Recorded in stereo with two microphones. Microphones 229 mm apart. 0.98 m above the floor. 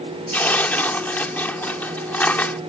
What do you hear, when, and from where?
0.3 s tearing paper: 5° left (ahead or behind)